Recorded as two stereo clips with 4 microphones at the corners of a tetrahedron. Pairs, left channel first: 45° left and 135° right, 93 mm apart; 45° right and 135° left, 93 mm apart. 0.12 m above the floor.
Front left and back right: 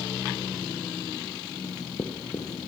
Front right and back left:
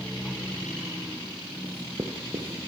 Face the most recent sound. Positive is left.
turn(degrees=90)